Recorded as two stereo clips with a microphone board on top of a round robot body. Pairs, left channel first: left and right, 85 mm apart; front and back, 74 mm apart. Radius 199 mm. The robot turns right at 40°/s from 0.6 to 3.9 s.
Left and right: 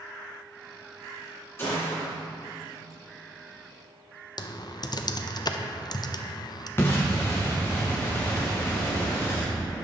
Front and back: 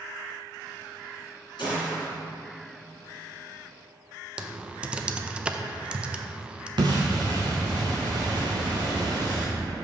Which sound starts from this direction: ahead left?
A gunshot, at 1.6 s.